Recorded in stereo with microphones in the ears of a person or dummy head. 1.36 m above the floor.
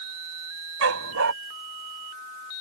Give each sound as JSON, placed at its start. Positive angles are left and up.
{"t": 0.8, "sound": "a dog barking", "side_deg": -75}